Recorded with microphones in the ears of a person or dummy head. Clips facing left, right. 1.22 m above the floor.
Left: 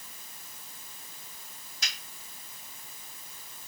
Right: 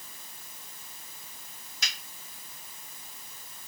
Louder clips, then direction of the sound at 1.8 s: Right 1 dB; 60° right (ahead or behind).